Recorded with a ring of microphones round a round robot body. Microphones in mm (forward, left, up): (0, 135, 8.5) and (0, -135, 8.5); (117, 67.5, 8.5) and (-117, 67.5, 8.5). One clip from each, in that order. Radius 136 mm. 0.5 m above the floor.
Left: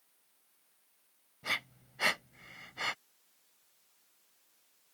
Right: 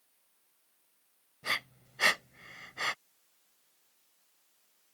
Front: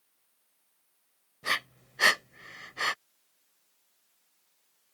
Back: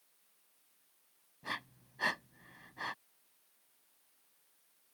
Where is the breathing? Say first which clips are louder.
Right 2 dB, front 11 dB; 10° right.